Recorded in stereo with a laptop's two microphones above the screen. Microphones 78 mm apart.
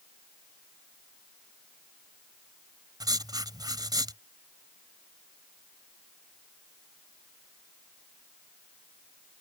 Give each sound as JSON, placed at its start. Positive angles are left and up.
{"t": 3.0, "sound": "writing", "side_deg": -65}